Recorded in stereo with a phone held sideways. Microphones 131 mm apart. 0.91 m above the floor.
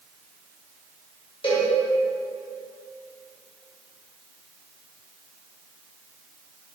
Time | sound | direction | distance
1.4 | a cowbell | 40° left (ahead or behind) | 1.5 m